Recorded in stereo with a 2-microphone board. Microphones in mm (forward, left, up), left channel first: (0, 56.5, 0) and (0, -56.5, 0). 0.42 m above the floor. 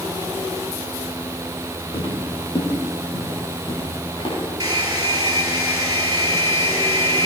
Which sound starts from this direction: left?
Footsteps, at 1.9 s.